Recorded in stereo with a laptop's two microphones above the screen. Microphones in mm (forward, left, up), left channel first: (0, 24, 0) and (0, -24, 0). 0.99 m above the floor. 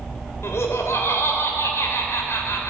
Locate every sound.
0.4 s laughter: 75° left (ahead or behind), 3 m